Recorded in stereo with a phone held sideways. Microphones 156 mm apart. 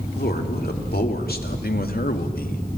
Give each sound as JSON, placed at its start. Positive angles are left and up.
{"t": 0.2, "sound": "a man speaking", "side_deg": 80, "distance_m": 3.0}